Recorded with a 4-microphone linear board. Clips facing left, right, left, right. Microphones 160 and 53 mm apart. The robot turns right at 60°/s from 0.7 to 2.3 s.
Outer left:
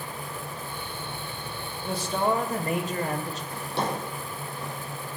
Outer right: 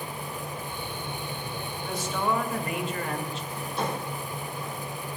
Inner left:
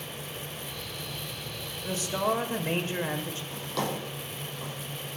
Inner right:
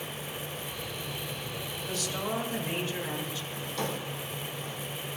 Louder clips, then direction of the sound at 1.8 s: Outer left 3 dB, inner left 6 dB; 25° left (ahead or behind).